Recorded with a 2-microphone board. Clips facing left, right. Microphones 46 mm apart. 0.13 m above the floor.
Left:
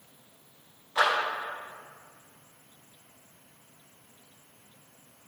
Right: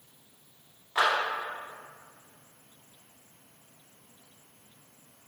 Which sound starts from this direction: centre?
A clap, at 0.9 s.